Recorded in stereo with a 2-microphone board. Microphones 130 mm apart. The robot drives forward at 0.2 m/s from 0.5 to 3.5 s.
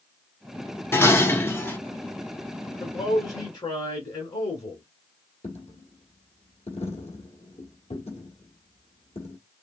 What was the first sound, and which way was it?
Dishes clattering, 15° left (ahead or behind).